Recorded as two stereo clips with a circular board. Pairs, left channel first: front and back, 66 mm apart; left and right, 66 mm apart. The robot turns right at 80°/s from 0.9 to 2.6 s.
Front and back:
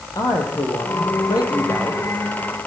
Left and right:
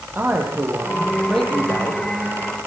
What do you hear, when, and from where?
0.1 s a man speaking: 35° right, 8 m; by 2.0 s 55° left, 8 m